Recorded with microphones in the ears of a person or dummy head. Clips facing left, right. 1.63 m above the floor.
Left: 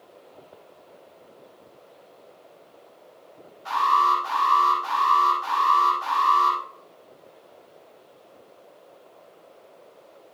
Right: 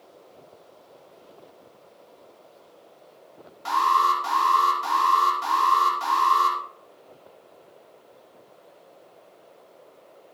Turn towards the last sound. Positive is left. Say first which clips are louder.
# even
turn(degrees=-80)